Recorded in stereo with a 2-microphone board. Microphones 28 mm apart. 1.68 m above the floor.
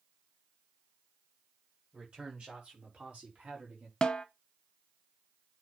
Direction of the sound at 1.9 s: 35° right (ahead or behind).